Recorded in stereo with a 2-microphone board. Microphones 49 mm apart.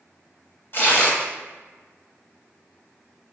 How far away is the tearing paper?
About 1.2 m.